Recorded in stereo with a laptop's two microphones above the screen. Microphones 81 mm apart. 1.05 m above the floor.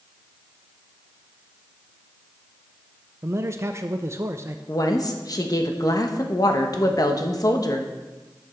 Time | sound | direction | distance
3.2 | a man speaking | 35° right (ahead or behind) | 0.5 m
4.7 | a woman speaking | 50° left (ahead or behind) | 1.0 m